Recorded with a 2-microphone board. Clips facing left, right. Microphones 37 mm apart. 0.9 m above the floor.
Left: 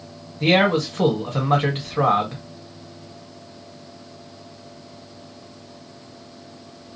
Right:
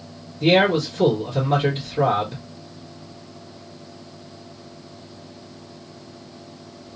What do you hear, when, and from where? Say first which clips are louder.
0.4 s a man speaking: right 1 dB; 55° left (ahead or behind), 1.5 m